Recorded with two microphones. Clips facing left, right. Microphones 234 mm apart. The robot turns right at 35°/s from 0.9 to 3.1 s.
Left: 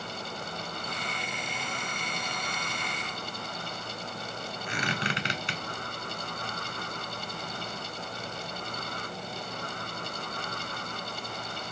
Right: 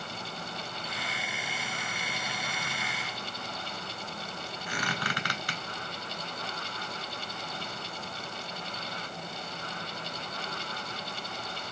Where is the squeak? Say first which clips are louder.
Left 3 dB; 25° left (ahead or behind), 0.7 m.